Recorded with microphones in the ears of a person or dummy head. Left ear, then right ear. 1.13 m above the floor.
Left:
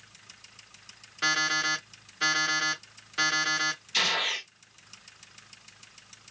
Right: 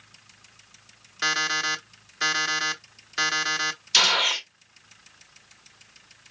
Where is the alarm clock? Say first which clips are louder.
Right 2 dB; 30° right (ahead or behind), 1.1 m.